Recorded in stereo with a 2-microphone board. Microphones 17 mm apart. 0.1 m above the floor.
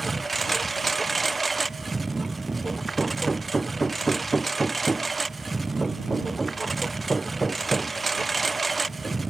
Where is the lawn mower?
5° left (ahead or behind).